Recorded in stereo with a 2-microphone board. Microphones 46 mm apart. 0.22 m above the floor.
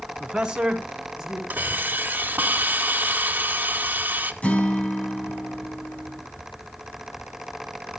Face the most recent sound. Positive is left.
turn(degrees=30)  # may be behind; listen again after turning